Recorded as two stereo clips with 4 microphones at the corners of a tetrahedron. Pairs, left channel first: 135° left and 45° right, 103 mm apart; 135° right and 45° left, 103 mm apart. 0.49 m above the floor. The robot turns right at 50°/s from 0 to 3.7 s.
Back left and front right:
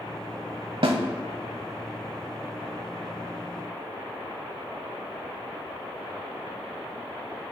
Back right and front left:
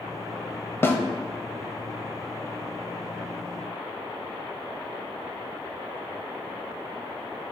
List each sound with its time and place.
0.8 s a snare drum: 70° right, 0.8 m; by 1.0 s 60° right, 0.8 m